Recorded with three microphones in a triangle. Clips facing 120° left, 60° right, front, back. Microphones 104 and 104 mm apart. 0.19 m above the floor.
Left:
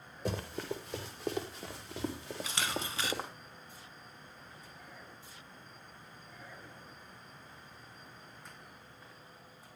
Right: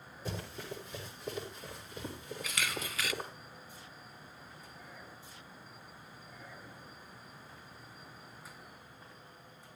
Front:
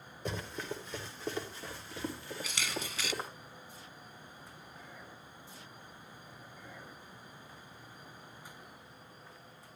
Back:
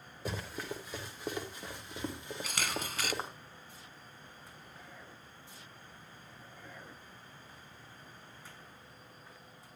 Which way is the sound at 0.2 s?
95° left.